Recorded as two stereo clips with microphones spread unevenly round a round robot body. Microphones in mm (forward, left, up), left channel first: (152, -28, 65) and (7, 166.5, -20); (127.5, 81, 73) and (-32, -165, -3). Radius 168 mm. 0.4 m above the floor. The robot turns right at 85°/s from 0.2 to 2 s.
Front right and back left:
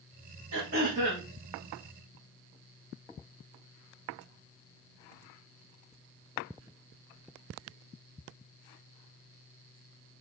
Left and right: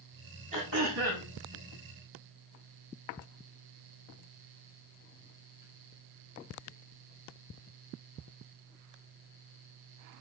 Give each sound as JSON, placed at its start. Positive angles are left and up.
{"t": 0.5, "sound": "throat clearing", "azimuth_deg": 165, "distance_m": 5.0}